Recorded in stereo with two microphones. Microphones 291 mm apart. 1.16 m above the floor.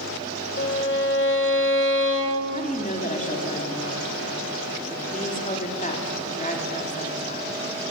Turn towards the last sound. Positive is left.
turn(degrees=25)  # may be behind; listen again after turning